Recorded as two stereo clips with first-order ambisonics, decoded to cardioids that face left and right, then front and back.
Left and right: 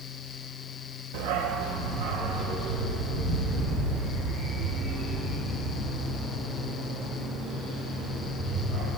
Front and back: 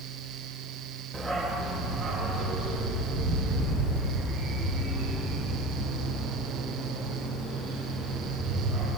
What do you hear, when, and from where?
1.1 s a dog barking: 90° right, 0.9 m; by 8.9 s 115° right, 12 m